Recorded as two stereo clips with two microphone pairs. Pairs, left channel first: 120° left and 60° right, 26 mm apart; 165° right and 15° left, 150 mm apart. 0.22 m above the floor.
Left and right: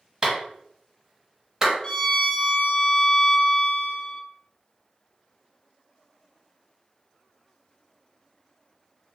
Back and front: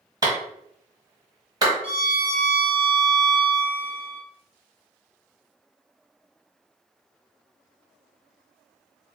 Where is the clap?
15° right, 1.0 m.